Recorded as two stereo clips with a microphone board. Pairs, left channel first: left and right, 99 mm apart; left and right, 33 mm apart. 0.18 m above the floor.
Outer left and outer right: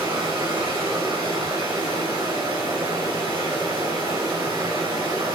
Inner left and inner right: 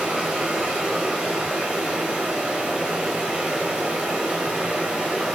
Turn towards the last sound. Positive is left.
turn(degrees=-35)  # may be behind; listen again after turning